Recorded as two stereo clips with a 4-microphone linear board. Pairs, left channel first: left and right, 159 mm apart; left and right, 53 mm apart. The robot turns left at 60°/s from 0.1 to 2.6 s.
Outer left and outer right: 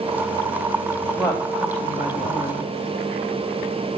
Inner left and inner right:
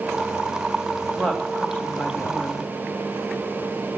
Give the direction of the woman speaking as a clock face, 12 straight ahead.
7 o'clock.